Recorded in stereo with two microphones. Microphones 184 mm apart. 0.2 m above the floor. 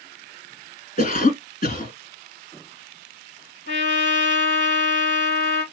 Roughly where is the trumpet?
Left.